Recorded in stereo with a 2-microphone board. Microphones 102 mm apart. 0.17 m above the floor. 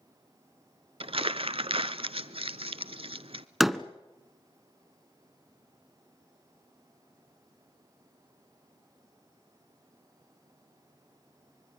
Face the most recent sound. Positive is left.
turn(degrees=0)  # may be behind; listen again after turning